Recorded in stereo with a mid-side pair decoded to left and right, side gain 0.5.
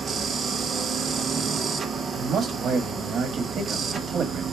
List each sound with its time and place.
0.0 s a machine running: 40° right, 0.8 m
2.1 s a man speaking: 50° right, 1.4 m